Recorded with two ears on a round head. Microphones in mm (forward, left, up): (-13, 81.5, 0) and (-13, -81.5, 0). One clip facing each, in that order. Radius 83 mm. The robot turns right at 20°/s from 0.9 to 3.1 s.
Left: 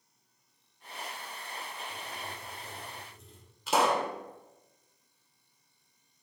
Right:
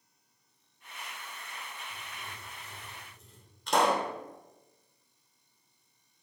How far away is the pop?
About 1.4 m.